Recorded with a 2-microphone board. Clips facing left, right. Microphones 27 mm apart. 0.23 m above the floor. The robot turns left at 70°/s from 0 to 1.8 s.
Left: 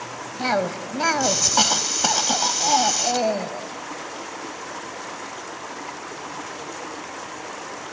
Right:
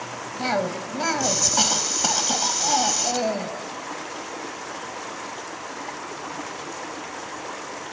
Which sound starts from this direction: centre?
A cough, at 0.4 s.